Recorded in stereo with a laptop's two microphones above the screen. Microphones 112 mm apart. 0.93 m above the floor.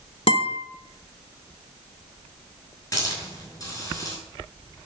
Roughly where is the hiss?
Left.